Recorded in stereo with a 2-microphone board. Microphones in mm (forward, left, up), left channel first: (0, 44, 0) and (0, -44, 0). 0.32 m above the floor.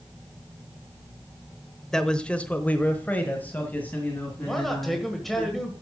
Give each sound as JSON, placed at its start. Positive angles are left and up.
{"t": 1.9, "sound": "a man speaking", "side_deg": 5, "distance_m": 0.9}
{"t": 4.5, "sound": "a man speaking", "side_deg": 5, "distance_m": 1.6}